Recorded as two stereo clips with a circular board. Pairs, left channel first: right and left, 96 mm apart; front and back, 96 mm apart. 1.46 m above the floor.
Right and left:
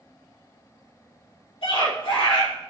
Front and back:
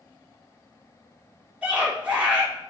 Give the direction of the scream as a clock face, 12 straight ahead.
3 o'clock.